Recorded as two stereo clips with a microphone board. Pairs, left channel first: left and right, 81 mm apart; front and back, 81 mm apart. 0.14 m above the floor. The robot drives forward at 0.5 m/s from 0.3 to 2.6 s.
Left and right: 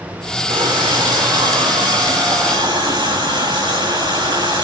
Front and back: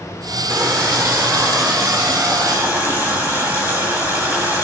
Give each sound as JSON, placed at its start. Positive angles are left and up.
{"t": 0.5, "sound": "a running tap", "azimuth_deg": -120, "distance_m": 7.5}